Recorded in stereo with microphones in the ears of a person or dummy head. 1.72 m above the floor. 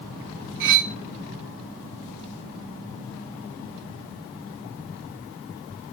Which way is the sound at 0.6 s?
45° right (ahead or behind).